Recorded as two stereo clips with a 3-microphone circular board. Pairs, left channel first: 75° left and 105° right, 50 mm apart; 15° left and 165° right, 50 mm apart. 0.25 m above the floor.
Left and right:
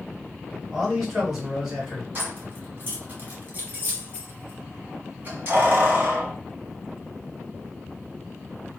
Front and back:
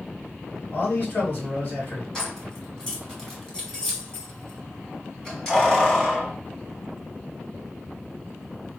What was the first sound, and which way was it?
A man speaking, 25° right.